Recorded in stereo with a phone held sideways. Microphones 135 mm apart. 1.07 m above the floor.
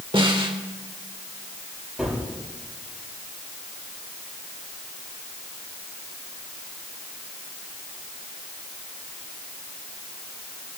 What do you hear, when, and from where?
0.1 s a snare drum: 40° right (ahead or behind), 2 m
2.0 s a gunshot: 5° right (ahead or behind), 8 m